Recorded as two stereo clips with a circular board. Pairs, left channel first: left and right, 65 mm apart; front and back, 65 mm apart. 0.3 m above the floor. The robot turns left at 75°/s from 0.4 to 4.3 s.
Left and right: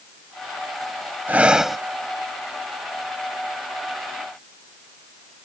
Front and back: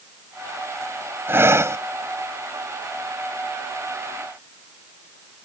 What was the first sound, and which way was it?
Breathing, 145° right.